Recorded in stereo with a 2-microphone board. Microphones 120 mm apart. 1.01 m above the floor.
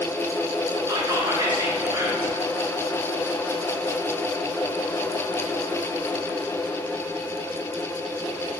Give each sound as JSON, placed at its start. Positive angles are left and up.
{"t": 0.9, "sound": "whispering", "side_deg": -30, "distance_m": 0.7}